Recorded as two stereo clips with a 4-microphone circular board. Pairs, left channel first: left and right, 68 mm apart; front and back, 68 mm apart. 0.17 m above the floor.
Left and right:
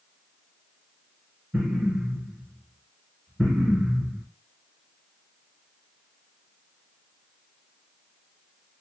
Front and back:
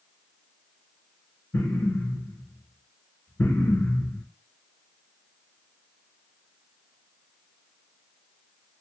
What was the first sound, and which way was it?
An explosion, 10° left.